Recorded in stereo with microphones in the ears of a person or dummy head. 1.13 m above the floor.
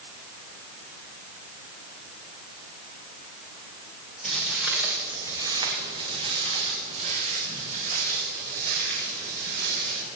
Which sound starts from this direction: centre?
Footsteps, at 4.2 s.